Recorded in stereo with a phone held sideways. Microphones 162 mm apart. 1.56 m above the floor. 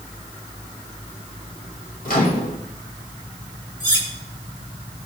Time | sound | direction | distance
2.0 | a microwave | 70° left (ahead or behind) | 1.8 m
3.8 | cutlery clinking | 35° right (ahead or behind) | 2.5 m